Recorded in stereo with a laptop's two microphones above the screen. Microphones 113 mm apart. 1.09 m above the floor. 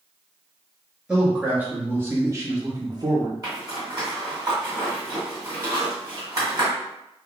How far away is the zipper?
About 1.6 m.